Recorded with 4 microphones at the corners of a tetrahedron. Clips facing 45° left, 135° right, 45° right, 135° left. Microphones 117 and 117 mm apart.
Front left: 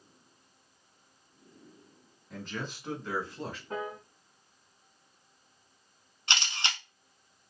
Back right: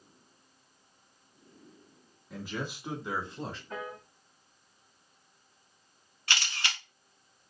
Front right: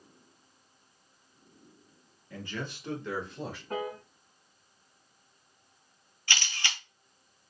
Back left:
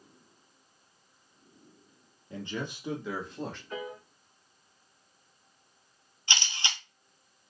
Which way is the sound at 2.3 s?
145° left.